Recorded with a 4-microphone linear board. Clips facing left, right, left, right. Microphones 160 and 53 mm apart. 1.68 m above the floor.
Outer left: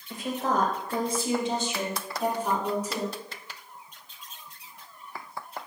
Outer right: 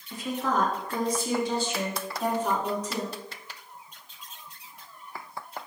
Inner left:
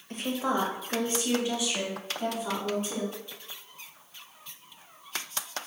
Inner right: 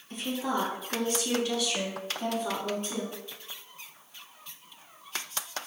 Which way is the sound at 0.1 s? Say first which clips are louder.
Outer left 1 dB, inner left 2 dB; 60° left (ahead or behind).